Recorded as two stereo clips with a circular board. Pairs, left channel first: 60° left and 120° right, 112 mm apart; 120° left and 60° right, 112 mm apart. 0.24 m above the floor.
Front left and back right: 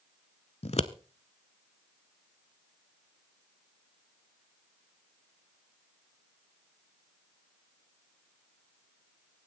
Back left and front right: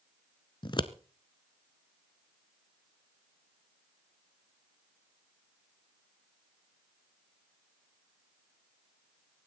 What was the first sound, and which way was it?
Scissors, 75° left.